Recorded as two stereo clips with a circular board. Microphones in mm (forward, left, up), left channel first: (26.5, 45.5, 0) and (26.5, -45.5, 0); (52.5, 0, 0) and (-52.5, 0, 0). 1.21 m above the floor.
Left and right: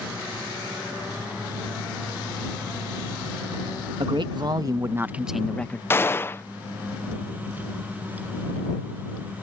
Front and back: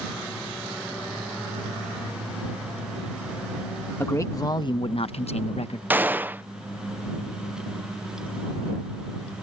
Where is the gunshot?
125° left.